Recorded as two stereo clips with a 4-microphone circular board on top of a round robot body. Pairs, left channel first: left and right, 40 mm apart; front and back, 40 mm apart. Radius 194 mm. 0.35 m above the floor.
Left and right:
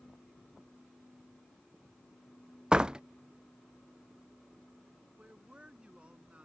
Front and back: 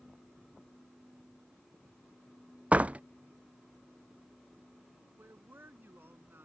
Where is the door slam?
150° right.